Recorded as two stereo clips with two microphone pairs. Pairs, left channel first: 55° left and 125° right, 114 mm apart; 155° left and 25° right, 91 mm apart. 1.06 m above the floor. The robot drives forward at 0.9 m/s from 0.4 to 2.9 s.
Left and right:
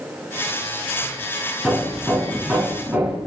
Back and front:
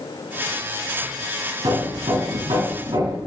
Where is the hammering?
40° right, 6 m; by 3.2 s 45° right, 5 m.